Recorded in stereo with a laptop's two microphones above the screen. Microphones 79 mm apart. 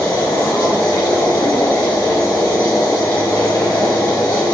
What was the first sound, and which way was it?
A machine running, 60° left (ahead or behind).